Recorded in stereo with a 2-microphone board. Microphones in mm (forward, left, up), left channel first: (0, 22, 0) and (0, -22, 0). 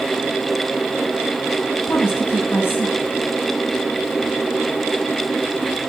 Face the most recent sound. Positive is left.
turn(degrees=60)  # may be behind; listen again after turning